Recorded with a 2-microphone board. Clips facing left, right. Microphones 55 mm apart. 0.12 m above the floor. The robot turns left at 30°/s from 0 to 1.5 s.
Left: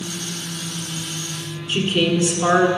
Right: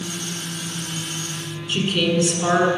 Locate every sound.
1.7 s a woman speaking: 15° left (ahead or behind), 1.2 m